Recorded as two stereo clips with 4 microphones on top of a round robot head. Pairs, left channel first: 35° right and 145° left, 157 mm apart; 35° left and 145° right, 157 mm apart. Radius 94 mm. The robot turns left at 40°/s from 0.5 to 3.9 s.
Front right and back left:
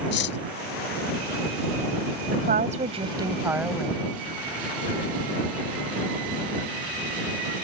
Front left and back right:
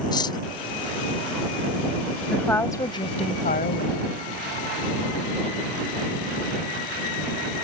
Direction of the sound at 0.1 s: 30° right.